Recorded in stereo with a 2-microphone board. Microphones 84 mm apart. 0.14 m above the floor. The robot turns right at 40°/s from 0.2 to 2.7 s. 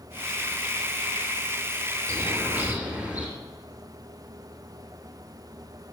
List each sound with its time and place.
2.1 s a bird: 35° right (ahead or behind), 3 m; by 3.3 s 15° right (ahead or behind), 3 m